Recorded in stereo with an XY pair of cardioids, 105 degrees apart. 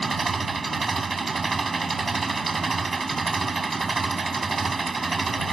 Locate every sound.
0.0 s an engine running: 20° right